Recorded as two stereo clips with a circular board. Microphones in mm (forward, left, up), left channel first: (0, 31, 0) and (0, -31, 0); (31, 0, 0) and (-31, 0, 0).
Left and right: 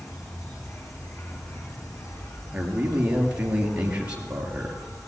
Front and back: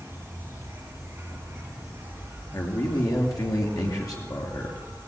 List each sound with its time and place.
0.0 s an insect: 125° left, 7.5 m
2.5 s a man speaking: 20° right, 4 m